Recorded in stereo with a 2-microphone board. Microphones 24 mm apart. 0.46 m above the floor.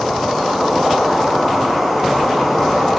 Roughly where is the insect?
Centre.